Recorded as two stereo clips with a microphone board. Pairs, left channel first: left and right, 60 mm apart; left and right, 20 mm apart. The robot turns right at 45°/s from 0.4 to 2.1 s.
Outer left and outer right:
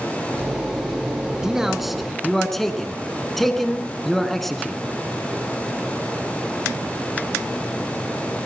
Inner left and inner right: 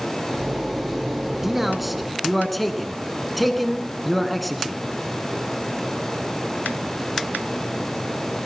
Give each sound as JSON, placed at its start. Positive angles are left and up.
{"t": 1.4, "sound": "a man speaking", "side_deg": -10, "distance_m": 1.5}